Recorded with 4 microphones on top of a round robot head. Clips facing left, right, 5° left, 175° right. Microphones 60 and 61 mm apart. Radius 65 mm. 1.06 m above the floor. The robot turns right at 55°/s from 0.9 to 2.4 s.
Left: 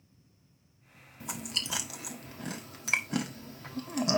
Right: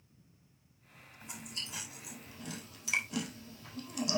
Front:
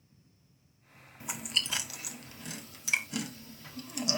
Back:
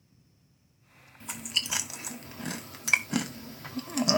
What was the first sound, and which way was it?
Chewing, 80° left.